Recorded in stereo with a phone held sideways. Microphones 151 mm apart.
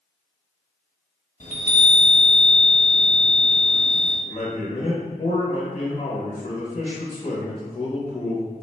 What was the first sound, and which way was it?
A chime, 50° left (ahead or behind).